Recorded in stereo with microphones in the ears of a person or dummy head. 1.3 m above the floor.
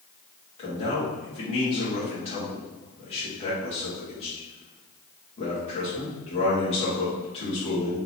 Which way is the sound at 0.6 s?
30° left (ahead or behind).